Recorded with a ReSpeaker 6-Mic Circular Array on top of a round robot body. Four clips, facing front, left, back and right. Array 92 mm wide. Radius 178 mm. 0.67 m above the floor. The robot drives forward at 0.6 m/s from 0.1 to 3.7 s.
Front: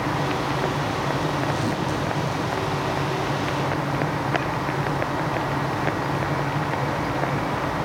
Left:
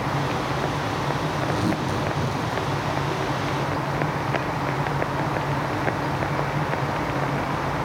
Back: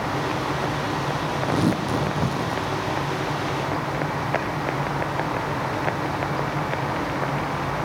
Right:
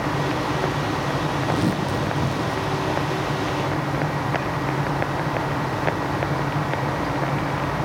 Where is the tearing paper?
155° right, 6 m.